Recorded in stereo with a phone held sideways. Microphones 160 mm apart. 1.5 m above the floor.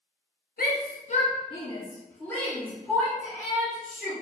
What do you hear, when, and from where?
0.6 s a shout: 70° left (ahead or behind), 0.7 m; by 4.1 s 5° right (ahead or behind), 1.9 m